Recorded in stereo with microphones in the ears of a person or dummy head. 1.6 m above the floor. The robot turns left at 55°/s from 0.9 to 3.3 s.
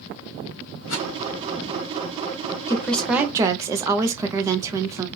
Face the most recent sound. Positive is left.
turn(degrees=-15)